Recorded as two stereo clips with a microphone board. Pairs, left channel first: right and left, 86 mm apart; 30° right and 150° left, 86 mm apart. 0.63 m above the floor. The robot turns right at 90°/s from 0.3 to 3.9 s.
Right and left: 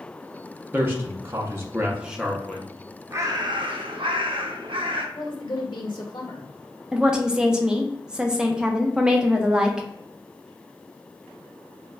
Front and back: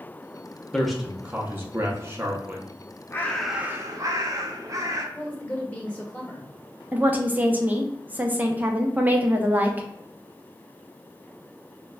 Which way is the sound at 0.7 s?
40° left.